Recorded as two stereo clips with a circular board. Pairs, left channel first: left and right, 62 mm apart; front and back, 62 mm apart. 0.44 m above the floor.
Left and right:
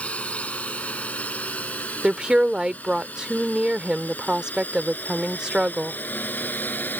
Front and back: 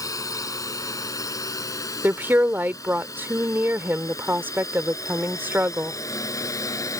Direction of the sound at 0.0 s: 20° left.